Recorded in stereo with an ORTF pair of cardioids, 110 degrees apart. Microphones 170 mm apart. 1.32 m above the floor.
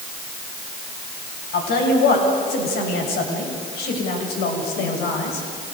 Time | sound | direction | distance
1.5 | a woman speaking | 70° left | 9 m